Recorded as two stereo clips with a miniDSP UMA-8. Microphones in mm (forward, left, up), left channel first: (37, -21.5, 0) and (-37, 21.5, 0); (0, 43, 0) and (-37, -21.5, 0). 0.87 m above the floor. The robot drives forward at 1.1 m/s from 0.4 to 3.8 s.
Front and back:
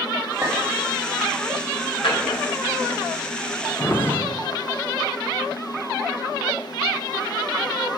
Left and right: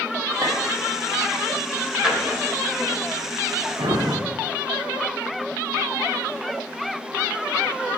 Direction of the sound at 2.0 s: 40° right.